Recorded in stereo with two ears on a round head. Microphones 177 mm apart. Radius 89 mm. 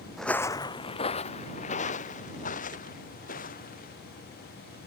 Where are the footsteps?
Centre (ahead or behind); by 3.9 s 45° left (ahead or behind).